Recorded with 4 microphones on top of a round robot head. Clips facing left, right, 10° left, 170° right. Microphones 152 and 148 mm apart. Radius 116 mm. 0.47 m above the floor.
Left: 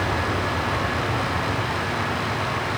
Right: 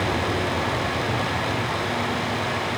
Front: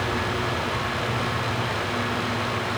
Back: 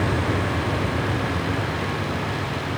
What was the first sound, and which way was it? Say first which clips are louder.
A vehicle: right 1 dB, back 3 dB; 175° right.